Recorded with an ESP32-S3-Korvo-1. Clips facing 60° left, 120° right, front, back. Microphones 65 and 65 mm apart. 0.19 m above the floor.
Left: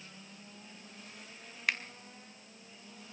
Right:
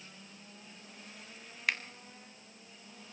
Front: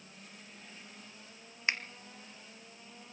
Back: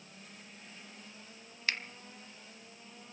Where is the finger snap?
35° right, 1.1 m.